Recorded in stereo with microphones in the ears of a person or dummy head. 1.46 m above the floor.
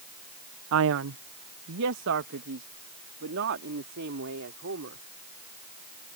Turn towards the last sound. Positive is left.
turn(degrees=-60)  # may be behind; listen again after turning